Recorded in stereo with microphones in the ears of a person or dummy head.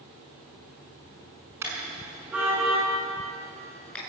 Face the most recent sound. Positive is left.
turn(degrees=5)  # may be behind; listen again after turning